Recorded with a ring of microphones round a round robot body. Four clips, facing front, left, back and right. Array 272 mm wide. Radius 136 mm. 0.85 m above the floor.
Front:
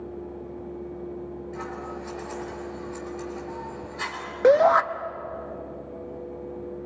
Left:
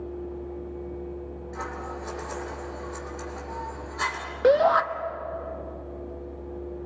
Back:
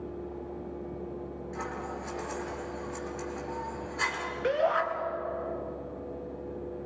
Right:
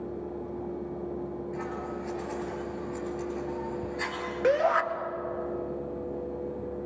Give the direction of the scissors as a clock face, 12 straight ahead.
9 o'clock.